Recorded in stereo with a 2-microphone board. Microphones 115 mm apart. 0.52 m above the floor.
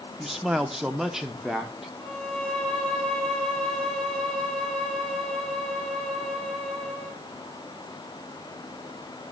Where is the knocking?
No knocking in this recording.